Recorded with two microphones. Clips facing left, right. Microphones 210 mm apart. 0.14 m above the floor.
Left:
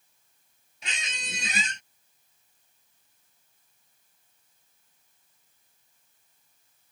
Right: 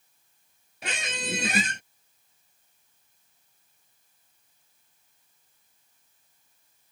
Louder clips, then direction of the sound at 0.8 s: Right 9 dB; 65° right (ahead or behind).